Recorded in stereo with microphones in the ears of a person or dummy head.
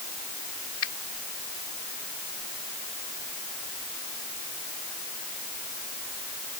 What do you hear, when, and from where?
0.8 s a finger snap: 80° left